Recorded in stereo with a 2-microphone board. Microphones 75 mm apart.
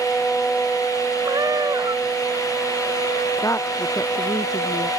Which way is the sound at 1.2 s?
55° right (ahead or behind).